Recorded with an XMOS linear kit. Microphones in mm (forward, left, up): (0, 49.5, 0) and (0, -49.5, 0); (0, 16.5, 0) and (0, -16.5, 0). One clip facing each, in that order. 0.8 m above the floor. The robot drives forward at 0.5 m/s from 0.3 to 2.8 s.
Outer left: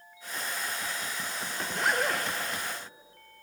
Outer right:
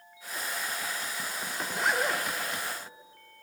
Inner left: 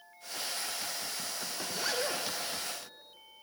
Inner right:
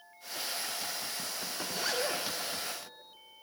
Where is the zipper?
Centre (ahead or behind), 0.5 m.